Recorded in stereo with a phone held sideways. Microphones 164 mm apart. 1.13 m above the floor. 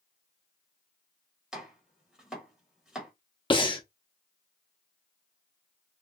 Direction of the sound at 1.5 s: 5° right (ahead or behind).